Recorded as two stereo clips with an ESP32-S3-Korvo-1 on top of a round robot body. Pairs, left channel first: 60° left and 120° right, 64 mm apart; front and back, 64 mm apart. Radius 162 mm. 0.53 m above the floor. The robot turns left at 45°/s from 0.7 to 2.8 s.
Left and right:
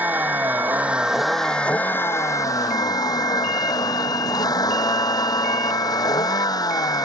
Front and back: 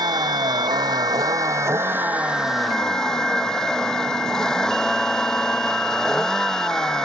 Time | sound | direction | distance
0.0 | a vehicle | 175° left | ?